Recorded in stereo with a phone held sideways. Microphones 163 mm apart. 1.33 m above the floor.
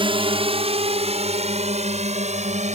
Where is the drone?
35° right (ahead or behind); by 2.8 s 45° right (ahead or behind).